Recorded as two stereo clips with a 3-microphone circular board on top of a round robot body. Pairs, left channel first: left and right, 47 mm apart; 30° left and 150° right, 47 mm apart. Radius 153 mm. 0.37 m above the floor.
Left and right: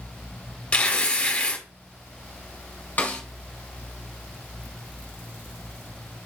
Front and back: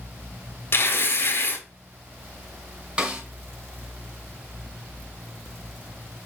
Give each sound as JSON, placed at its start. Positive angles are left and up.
{"t": 0.7, "sound": "tearing paper", "azimuth_deg": 30, "distance_m": 1.7}
{"t": 3.0, "sound": "a snare drum", "azimuth_deg": 140, "distance_m": 1.6}